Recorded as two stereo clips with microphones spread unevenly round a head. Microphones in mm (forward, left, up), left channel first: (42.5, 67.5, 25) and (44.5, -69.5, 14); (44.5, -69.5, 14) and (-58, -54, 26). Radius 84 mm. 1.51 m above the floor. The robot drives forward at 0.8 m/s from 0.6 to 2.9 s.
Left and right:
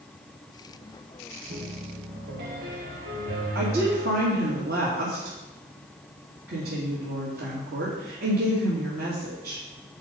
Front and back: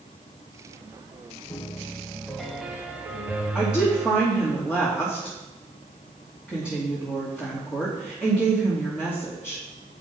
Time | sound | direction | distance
1.5 | a piano | 65° right | 1.5 m
3.5 | a woman speaking | 105° right | 2.5 m